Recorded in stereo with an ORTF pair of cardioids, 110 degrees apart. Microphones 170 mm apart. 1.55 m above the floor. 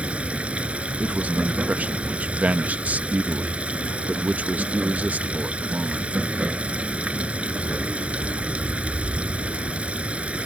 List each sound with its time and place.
0.0 s running water: 5° right
1.0 s a man speaking: 10° right